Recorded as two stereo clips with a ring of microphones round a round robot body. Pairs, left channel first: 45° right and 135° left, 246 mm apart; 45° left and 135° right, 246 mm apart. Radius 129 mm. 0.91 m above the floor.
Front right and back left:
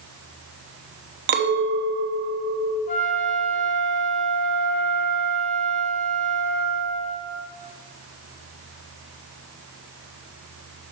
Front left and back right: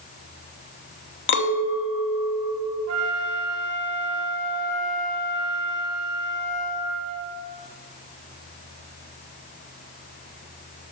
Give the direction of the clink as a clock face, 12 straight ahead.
9 o'clock.